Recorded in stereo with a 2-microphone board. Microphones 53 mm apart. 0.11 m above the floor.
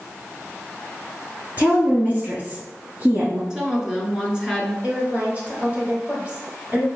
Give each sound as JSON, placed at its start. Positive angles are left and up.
{"t": 1.6, "sound": "a woman speaking", "side_deg": -35, "distance_m": 1.6}
{"t": 3.5, "sound": "a woman speaking", "side_deg": -15, "distance_m": 1.5}
{"t": 4.8, "sound": "a woman speaking", "side_deg": -30, "distance_m": 1.8}